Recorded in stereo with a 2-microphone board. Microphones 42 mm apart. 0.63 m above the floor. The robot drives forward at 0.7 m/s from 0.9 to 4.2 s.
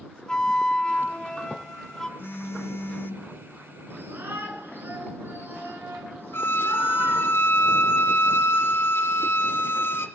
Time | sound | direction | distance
0.3 | a flute | 20° left (ahead or behind) | 0.8 m
2.2 | a phone buzzing | 55° left (ahead or behind) | 0.6 m
3.9 | a shout | 65° right (ahead or behind) | 9 m
6.3 | a violin | 80° left | 1.4 m